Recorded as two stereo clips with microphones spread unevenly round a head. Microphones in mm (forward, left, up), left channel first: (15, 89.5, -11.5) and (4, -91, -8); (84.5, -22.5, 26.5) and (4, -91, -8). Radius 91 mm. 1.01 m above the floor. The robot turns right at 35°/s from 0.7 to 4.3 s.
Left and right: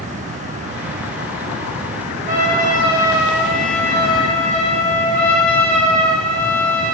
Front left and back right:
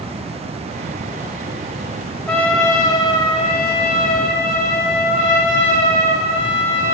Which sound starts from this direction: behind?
A trumpet, at 5.2 s.